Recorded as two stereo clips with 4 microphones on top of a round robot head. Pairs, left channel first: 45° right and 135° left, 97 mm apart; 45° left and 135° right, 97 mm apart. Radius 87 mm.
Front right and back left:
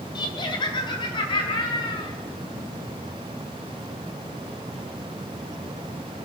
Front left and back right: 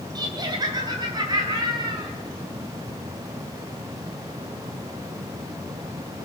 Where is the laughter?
85° right, 3 m.